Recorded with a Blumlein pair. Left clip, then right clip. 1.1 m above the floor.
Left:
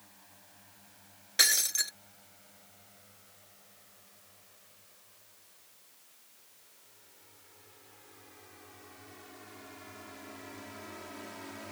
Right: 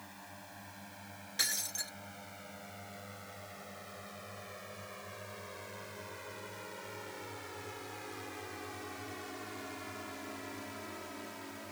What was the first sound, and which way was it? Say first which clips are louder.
A drone: right 9 dB; 60° right.